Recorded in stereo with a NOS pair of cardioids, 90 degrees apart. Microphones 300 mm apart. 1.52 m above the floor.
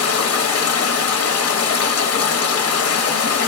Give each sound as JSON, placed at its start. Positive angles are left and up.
{"t": 0.0, "sound": "running water", "azimuth_deg": 55, "distance_m": 1.0}